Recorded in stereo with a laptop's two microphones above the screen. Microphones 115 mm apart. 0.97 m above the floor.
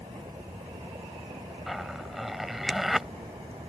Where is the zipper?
Centre (ahead or behind).